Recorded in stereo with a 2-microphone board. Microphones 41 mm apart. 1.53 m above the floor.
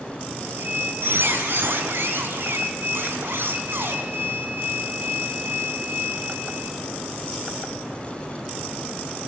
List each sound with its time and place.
0.4 s a squeak: 65° right (ahead or behind), 4.5 m